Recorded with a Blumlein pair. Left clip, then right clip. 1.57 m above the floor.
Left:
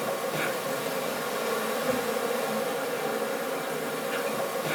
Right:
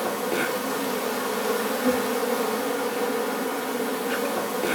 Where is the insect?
35° right, 7 m.